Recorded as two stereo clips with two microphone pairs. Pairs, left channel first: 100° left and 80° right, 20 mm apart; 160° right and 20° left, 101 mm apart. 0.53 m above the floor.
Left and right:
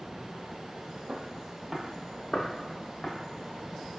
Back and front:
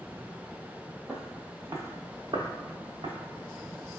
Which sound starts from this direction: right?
Footsteps, at 1.1 s.